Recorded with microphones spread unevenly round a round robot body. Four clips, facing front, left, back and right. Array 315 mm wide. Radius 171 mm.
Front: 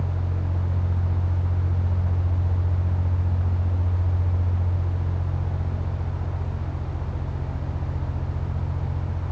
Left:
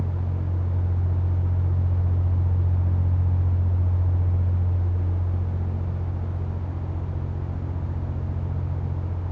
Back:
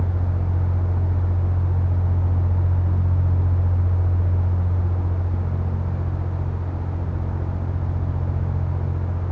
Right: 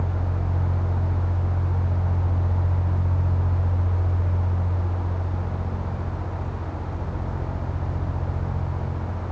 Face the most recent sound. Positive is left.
No sound to turn to.